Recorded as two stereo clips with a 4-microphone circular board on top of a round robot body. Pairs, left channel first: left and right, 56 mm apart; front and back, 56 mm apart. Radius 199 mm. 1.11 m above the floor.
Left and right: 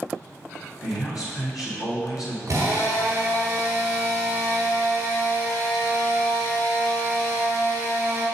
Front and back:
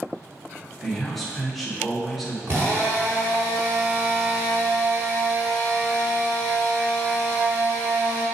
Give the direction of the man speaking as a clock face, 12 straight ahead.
9 o'clock.